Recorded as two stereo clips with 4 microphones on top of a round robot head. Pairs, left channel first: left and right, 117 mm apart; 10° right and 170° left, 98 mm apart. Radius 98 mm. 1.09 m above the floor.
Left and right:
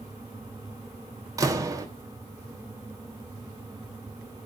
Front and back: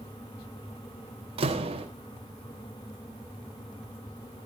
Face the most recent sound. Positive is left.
turn(degrees=-150)